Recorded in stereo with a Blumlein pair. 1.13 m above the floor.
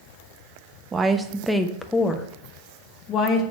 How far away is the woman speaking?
About 0.8 m.